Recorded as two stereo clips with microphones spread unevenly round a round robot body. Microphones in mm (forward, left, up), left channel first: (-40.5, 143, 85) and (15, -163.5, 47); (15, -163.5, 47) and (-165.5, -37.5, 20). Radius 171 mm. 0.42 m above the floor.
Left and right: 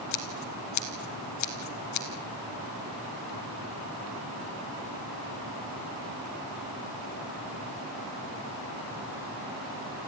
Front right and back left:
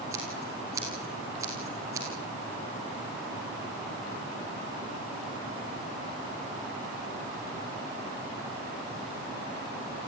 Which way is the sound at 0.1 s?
65° left.